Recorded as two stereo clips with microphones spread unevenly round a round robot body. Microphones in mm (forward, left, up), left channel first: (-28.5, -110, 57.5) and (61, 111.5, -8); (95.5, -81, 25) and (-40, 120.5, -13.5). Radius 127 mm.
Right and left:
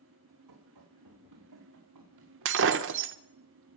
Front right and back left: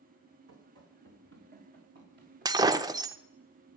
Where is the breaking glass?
45° left, 0.5 m.